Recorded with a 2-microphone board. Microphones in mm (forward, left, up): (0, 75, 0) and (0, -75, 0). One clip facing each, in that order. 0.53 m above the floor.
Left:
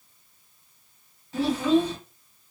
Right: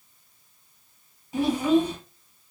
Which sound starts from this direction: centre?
A child speaking, at 1.3 s.